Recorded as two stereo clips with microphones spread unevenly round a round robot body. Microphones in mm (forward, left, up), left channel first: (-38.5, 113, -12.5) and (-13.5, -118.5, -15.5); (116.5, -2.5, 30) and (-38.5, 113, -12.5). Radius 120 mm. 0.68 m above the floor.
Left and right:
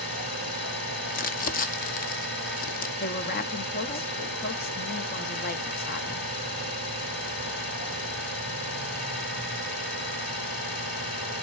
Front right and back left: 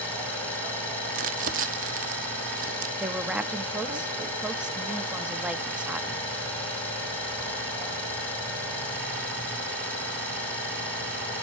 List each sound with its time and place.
0.0 s an engine running: 40° left, 7.5 m
1.1 s crumpling: 140° left, 0.8 m
3.0 s a woman speaking: 80° left, 0.7 m